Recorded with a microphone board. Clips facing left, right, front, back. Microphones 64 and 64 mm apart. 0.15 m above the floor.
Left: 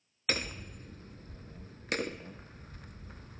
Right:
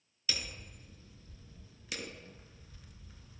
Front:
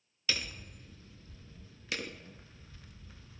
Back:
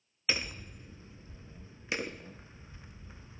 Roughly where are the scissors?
No scissors in this recording.